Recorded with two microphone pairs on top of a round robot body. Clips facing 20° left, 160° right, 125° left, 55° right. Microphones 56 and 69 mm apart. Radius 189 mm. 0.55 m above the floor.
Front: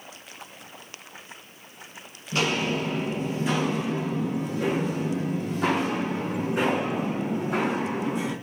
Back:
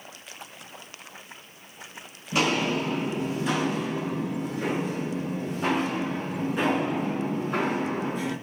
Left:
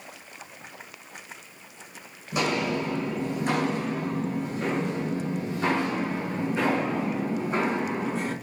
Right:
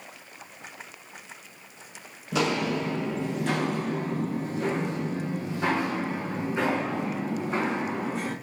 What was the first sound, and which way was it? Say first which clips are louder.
Footsteps: back 1 dB, even; 75° right.